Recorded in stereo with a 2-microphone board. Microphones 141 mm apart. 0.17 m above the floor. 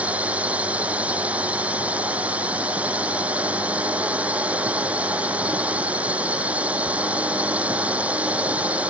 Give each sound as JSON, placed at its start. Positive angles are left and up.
{"t": 0.0, "sound": "a drone", "side_deg": -10}